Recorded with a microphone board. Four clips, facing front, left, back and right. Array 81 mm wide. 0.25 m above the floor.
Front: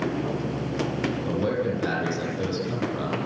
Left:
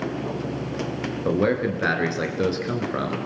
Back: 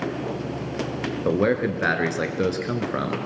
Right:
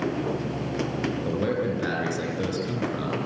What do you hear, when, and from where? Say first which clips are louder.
1.2 s a man speaking: left 7 dB, back 7 dB; 150° left, 3.5 m